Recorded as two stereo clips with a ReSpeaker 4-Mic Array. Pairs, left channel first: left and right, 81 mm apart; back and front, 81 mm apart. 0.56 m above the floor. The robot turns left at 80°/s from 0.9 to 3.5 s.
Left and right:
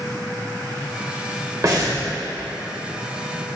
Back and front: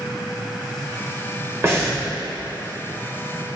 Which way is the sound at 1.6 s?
50° right.